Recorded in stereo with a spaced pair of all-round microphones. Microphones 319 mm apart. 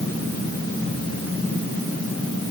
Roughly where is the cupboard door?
No cupboard door in this recording.